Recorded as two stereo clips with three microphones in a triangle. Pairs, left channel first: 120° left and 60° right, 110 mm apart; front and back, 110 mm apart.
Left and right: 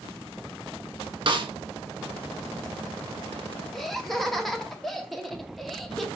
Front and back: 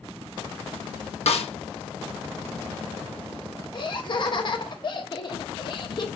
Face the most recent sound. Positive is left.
turn(degrees=30)